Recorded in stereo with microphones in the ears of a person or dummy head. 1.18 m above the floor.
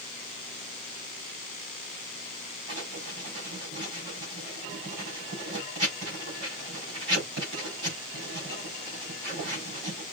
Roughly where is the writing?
Right.